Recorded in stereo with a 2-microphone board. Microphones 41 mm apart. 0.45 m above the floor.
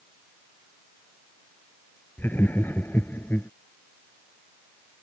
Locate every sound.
2.2 s laughter: 55° left (ahead or behind); by 3.5 s 60° left (ahead or behind)